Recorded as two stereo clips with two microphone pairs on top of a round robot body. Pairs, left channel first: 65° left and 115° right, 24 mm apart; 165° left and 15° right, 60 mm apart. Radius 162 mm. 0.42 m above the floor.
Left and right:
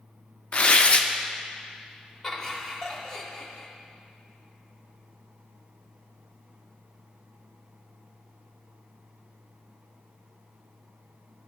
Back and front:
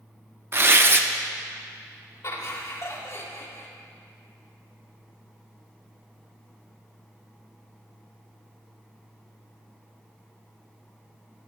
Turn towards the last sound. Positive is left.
turn(degrees=135)